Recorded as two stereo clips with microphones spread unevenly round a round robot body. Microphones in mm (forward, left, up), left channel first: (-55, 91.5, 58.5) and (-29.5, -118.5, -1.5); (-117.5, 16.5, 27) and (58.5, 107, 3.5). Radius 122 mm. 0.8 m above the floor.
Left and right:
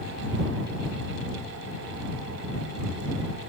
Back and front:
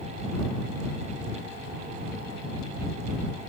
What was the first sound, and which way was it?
Only background noise.